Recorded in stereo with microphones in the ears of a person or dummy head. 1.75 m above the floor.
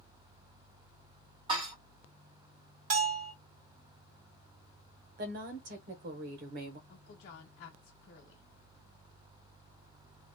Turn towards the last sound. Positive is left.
turn(degrees=60)  # may be behind; listen again after turning